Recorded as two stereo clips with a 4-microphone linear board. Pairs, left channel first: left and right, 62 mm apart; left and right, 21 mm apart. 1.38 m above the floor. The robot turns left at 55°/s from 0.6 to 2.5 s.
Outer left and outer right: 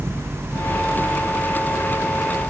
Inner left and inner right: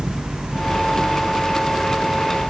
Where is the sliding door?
I don't hear a sliding door.